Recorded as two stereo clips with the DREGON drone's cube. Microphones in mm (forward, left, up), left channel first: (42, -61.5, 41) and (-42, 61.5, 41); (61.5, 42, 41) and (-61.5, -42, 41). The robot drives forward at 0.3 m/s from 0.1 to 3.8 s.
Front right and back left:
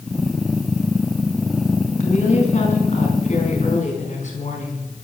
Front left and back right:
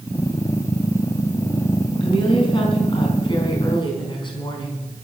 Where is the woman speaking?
20° right, 4.5 m.